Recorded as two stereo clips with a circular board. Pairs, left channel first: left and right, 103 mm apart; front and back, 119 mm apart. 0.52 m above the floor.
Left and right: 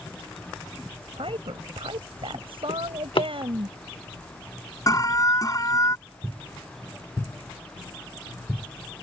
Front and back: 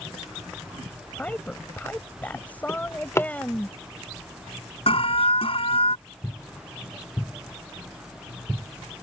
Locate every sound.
1.2 s a woman speaking: 75° right
2.7 s a drawer: 65° left
4.9 s an alarm: 35° left